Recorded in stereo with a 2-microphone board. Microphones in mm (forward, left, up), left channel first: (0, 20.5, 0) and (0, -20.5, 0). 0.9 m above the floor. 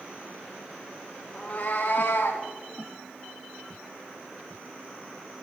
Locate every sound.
1.3 s a cat meowing: 25° left (ahead or behind), 1.6 m; by 2.5 s 60° left (ahead or behind), 2.5 m